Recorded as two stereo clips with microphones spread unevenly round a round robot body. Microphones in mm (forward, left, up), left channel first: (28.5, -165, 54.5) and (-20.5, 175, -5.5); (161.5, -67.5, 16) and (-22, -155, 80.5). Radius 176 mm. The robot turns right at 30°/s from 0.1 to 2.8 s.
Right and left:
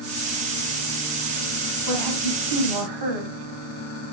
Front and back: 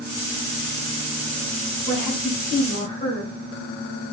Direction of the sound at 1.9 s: 55° left.